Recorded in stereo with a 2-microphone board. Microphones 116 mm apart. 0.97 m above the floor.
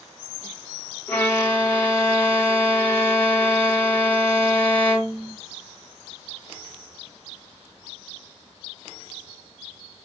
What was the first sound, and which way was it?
A violin, 15° left (ahead or behind).